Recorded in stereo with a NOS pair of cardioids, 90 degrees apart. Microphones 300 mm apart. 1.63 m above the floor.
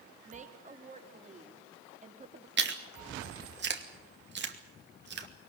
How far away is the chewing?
About 2.5 m.